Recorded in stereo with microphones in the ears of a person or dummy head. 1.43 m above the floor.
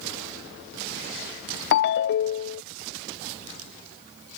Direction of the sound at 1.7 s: 60° left (ahead or behind).